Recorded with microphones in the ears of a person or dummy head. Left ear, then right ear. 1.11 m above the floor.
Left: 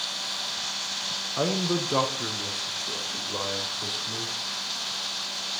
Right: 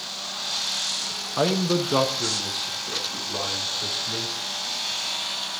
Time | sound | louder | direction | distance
1.4 | a man speaking | right 5 dB | 20° right (ahead or behind) | 0.7 m